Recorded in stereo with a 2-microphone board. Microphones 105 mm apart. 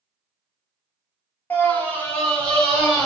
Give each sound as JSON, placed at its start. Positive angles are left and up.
{"t": 1.5, "sound": "a scream", "side_deg": 20, "distance_m": 1.0}